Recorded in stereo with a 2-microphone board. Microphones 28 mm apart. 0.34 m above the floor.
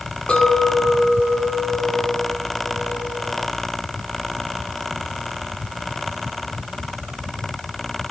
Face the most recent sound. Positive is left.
turn(degrees=40)  # may be behind; listen again after turning